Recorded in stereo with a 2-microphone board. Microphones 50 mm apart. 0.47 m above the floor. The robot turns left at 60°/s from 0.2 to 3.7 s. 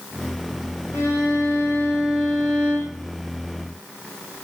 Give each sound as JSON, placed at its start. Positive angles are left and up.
{"t": 0.9, "sound": "a violin", "azimuth_deg": 90, "distance_m": 6.5}